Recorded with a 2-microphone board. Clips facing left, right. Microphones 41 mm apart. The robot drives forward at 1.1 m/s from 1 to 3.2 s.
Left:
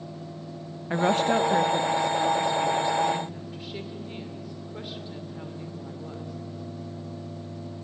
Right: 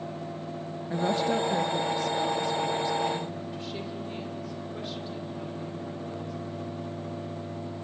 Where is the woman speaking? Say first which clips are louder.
Left 4 dB; 60° left (ahead or behind), 0.6 m; by 6.4 s 10° left (ahead or behind), 2.5 m.